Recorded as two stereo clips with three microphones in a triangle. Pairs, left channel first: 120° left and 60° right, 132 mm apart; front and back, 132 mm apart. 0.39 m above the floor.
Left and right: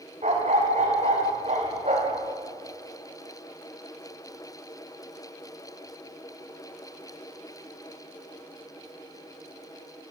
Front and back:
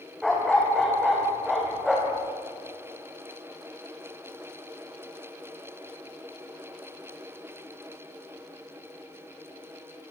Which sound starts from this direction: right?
A dog barking, at 0.2 s.